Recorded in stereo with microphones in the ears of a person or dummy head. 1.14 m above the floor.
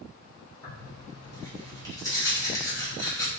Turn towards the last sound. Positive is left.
turn(degrees=15)  # may be behind; listen again after turning